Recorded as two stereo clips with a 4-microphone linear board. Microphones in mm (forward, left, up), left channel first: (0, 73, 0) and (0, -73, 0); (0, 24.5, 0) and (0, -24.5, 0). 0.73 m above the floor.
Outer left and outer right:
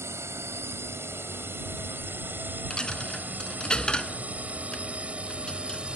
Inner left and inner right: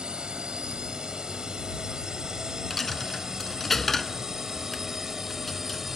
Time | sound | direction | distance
0.0 | a drone | 15° right (ahead or behind) | ?
2.7 | a dropped coin | 5° left (ahead or behind) | ?